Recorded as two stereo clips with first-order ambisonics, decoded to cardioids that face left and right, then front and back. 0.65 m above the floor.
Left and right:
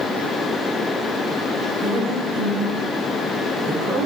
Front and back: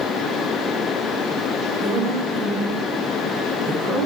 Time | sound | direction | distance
1.8 | a woman speaking | 150° right | 1.8 m